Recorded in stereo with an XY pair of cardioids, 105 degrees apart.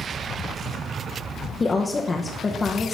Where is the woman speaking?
30° left, 0.9 m.